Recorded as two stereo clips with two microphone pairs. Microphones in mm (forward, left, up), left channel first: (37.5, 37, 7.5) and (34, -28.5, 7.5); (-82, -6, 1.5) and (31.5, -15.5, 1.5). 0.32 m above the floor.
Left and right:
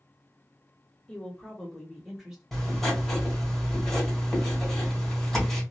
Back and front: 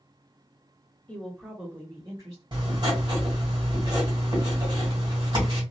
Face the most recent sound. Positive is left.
turn(degrees=5)